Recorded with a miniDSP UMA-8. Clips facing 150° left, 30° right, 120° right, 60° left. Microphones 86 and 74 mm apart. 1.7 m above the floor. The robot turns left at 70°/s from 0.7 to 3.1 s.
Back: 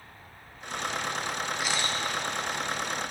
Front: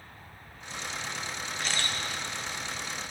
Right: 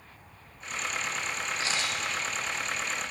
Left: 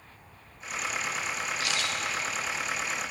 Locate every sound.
1.6 s a camera shutter: 135° right, 0.5 m; by 2.0 s 160° right, 0.5 m